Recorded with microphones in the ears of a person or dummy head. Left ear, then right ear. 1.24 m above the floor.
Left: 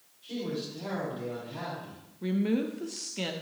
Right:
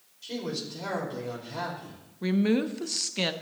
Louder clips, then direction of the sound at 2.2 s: Right 4 dB; 25° right (ahead or behind).